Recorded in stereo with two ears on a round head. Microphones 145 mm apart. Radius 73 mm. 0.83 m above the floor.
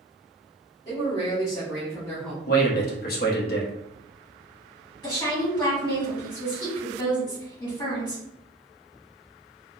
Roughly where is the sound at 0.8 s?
Left.